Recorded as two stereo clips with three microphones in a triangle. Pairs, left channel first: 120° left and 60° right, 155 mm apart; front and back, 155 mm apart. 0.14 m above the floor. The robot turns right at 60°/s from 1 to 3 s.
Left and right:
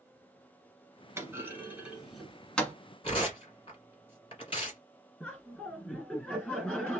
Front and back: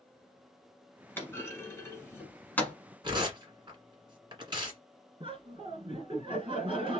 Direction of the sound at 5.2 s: 165° right.